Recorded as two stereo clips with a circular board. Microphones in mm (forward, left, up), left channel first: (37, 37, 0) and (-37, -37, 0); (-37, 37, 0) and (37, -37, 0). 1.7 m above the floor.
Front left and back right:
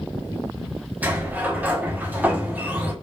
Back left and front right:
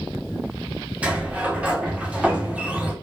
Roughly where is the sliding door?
Right.